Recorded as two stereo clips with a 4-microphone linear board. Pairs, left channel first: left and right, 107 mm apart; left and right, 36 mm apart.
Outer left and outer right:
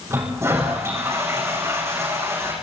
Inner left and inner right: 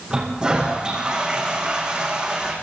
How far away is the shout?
I don't hear a shout.